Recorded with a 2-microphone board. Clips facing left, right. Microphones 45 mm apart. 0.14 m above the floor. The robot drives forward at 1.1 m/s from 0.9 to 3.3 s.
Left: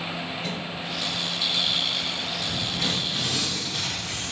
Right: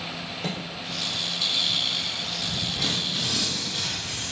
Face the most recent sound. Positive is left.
turn(degrees=0)  # may be behind; listen again after turning